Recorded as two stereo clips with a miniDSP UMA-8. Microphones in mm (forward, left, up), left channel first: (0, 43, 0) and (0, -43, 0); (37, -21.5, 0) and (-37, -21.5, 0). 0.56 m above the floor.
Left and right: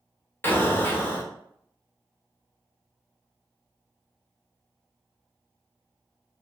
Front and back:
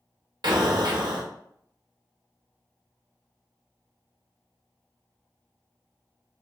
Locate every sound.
0.4 s an explosion: 155° left, 0.6 m